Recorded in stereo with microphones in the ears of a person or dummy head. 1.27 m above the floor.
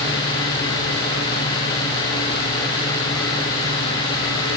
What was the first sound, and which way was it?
Only background noise.